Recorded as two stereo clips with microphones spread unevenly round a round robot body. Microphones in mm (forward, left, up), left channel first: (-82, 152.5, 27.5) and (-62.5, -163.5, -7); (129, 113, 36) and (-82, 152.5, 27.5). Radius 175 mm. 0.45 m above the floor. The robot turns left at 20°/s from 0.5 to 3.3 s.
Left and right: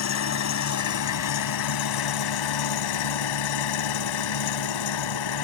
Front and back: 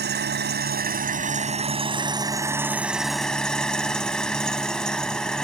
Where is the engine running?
130° left; by 5.5 s 75° left.